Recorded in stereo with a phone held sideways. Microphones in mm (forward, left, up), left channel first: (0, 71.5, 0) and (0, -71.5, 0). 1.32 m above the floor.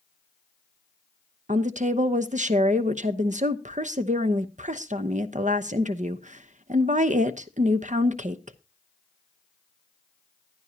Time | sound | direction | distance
1.5 | a woman speaking | 60° right (ahead or behind) | 0.9 m